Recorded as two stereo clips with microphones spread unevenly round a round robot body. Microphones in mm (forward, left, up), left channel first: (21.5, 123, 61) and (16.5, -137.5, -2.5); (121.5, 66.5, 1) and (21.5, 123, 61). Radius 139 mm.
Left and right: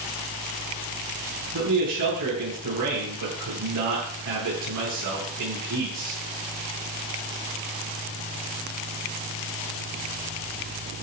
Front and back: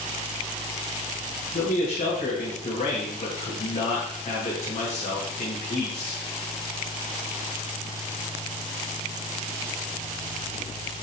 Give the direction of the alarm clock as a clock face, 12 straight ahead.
I don't hear an alarm clock.